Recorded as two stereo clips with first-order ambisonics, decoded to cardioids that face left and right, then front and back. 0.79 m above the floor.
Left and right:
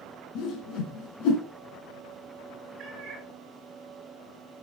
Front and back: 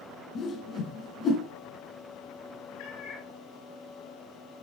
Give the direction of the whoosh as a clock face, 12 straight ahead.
10 o'clock.